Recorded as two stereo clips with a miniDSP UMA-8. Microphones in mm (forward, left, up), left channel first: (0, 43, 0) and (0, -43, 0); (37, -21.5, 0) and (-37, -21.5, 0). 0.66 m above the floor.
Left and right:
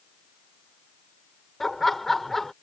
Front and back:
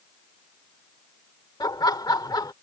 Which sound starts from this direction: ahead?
Laughter, at 1.6 s.